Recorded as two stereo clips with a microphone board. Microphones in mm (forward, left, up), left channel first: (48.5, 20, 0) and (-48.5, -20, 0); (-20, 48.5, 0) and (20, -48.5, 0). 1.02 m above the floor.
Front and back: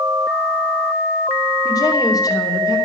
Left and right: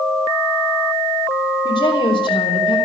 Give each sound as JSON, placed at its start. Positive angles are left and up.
{"t": 1.6, "sound": "a woman speaking", "azimuth_deg": 75, "distance_m": 3.5}